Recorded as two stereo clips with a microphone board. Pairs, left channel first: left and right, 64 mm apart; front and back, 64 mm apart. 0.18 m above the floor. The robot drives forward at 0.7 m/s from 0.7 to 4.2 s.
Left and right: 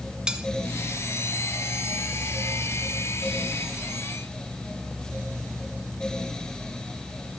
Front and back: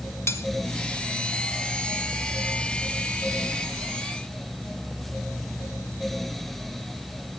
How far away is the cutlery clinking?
About 1.1 m.